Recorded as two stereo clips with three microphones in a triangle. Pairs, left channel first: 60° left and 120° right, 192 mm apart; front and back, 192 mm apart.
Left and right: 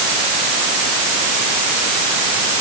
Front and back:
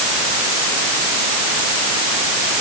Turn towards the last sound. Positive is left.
No sound to turn to.